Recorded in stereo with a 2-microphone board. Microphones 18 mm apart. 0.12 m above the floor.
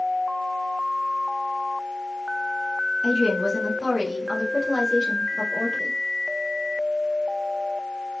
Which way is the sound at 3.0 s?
5° left (ahead or behind).